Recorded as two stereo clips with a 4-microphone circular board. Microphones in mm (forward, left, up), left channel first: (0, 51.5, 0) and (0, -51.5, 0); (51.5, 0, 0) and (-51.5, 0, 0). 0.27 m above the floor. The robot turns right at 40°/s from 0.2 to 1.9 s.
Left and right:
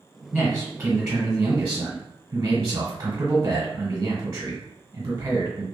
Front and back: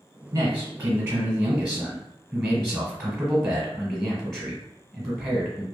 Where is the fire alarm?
I don't hear a fire alarm.